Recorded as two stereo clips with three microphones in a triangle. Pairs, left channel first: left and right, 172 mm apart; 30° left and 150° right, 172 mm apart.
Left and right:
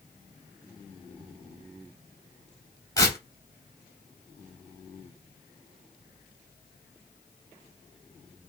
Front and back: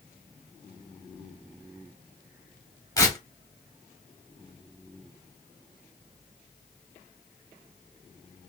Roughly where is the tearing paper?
Ahead left.